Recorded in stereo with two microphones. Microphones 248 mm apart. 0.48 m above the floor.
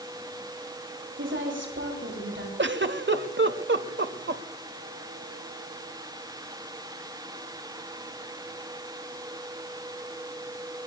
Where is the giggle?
55° right (ahead or behind), 1.0 m.